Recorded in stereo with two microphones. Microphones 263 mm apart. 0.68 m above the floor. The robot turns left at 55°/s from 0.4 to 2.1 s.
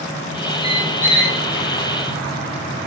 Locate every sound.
0.6 s a squeak: 100° right, 3 m; by 1.4 s 145° right, 3 m